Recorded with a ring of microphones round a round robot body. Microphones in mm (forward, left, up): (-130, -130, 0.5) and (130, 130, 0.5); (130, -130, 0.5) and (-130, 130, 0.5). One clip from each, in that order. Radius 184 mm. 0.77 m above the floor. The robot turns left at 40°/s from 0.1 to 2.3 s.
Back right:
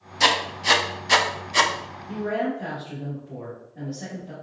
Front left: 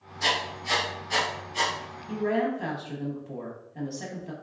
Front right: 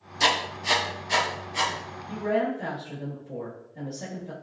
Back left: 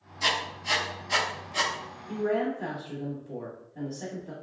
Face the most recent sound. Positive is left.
turn(degrees=60)